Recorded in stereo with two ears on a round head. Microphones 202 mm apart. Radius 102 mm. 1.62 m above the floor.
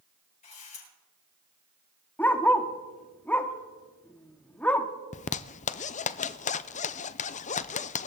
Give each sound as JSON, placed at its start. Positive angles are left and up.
{"t": 0.4, "sound": "a camera shutter", "side_deg": 35, "distance_m": 8.5}
{"t": 2.2, "sound": "a dog barking", "side_deg": 5, "distance_m": 1.1}
{"t": 5.1, "sound": "a zipper", "side_deg": 35, "distance_m": 0.6}